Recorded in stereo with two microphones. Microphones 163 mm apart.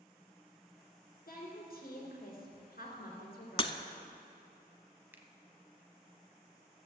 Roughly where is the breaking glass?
Left.